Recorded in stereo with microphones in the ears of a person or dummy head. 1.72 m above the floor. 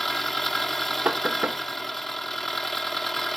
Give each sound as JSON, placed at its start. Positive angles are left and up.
{"t": 0.0, "sound": "an engine running", "side_deg": 0}
{"t": 1.1, "sound": "knocking", "side_deg": -10}